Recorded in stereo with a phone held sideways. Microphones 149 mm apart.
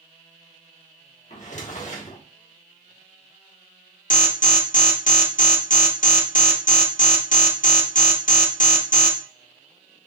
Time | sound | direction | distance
1.3 | a drawer | 55° left (ahead or behind) | 1.2 m
4.1 | an alarm | 60° left (ahead or behind) | 0.9 m